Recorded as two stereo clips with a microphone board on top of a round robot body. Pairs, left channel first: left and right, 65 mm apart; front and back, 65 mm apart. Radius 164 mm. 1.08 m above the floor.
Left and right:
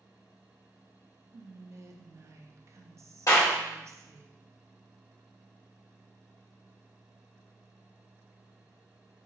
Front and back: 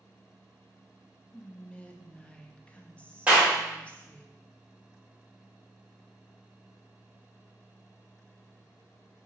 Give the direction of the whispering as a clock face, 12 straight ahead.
2 o'clock.